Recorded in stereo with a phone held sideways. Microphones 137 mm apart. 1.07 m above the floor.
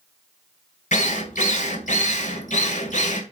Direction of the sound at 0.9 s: 65° left (ahead or behind).